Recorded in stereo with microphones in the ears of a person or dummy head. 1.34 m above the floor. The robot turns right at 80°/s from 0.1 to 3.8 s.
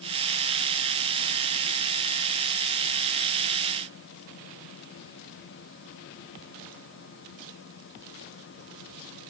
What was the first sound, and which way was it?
Only background noise.